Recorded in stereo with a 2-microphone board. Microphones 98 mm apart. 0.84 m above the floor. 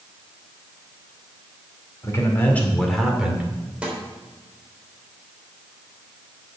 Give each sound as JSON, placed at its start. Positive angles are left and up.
{"t": 2.0, "sound": "a man speaking", "side_deg": 30, "distance_m": 2.5}
{"t": 3.8, "sound": "a snare drum", "side_deg": -10, "distance_m": 3.5}